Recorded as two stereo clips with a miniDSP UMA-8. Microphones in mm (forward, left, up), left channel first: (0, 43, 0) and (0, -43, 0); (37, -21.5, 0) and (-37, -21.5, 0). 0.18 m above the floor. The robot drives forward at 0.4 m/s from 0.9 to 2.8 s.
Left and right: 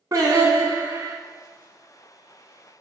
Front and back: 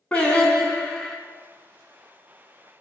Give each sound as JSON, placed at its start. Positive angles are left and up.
{"t": 0.1, "sound": "singing", "azimuth_deg": -65, "distance_m": 0.5}